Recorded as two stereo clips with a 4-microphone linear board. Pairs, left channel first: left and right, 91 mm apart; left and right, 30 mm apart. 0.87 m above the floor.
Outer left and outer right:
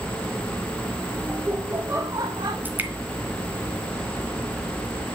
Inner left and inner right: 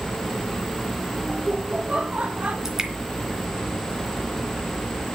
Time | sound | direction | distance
1.3 | laughter | 15° right (ahead or behind) | 2.0 m
2.6 | dripping | 20° right (ahead or behind) | 2.5 m